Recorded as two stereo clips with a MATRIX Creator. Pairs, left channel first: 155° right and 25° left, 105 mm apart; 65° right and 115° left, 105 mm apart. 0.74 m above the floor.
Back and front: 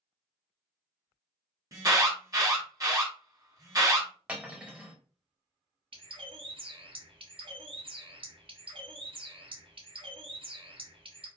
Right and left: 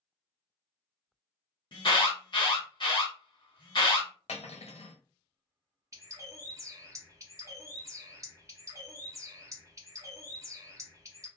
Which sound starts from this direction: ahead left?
A bird, at 5.9 s.